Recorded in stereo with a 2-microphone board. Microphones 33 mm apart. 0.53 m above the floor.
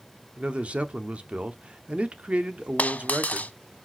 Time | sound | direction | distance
0.4 | a man speaking | 40° right (ahead or behind) | 0.8 m
2.8 | a dropped coin | 55° left (ahead or behind) | 0.5 m